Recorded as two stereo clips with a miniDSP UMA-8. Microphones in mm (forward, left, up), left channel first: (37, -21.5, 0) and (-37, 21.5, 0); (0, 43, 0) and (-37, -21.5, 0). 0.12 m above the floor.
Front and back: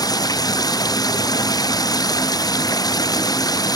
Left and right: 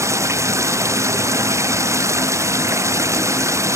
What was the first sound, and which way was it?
Running water, 70° right.